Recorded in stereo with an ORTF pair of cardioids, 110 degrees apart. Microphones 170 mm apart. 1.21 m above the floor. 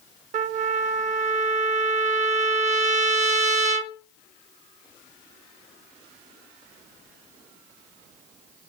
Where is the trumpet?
45° right, 0.9 m.